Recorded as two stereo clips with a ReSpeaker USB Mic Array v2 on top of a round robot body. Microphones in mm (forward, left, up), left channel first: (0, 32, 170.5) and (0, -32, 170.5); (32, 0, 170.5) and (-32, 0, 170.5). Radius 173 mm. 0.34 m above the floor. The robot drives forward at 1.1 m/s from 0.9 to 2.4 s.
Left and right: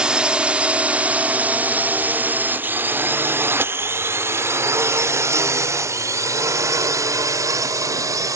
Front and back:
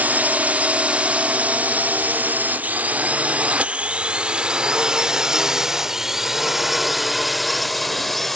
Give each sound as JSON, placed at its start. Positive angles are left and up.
{"t": 0.0, "sound": "a drone", "azimuth_deg": -150}